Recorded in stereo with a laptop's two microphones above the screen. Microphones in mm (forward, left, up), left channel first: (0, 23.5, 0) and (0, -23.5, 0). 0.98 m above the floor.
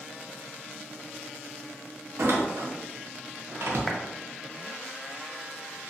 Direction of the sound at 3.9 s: Centre (ahead or behind).